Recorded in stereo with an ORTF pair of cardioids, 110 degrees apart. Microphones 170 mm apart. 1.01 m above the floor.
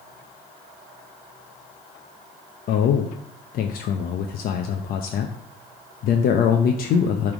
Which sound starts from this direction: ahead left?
A man speaking, at 2.7 s.